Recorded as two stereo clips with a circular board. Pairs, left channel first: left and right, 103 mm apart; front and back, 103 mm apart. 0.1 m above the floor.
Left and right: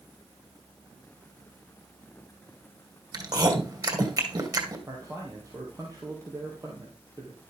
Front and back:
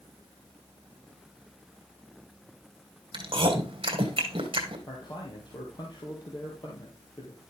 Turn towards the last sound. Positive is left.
turn(degrees=-35)